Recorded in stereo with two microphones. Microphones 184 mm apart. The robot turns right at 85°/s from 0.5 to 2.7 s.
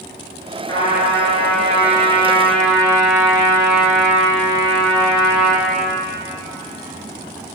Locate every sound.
0.7 s a trumpet: 20° left, 4 m; by 5.7 s 170° right, 4 m